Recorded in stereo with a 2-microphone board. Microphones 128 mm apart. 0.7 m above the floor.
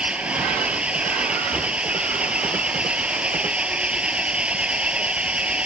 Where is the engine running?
10° right (ahead or behind).